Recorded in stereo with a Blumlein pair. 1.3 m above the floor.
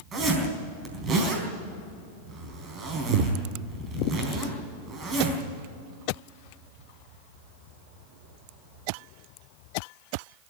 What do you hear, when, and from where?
0.1 s a zipper: 25° right, 4 m